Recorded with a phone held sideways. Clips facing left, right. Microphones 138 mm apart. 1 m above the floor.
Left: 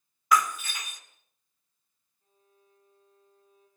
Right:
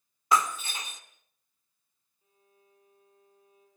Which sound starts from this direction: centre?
A violin, at 2.2 s.